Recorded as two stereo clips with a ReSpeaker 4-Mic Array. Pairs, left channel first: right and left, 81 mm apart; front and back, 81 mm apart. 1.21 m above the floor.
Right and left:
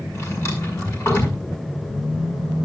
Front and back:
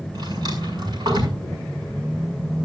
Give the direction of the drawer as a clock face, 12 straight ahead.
5 o'clock.